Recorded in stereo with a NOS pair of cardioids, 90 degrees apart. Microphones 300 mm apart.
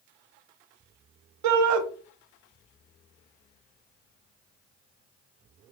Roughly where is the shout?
Right.